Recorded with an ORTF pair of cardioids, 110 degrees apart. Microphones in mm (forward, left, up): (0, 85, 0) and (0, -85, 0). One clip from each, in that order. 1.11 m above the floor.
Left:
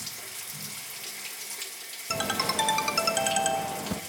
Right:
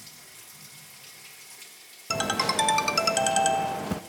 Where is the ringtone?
10° right, 0.7 m.